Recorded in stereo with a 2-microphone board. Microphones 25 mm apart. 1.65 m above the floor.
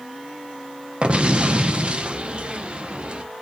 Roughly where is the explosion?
Right.